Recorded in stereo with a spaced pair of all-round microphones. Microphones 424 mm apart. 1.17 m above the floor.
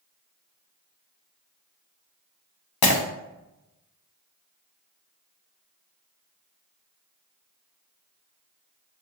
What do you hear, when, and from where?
2.8 s breaking glass: 60° left (ahead or behind), 0.5 m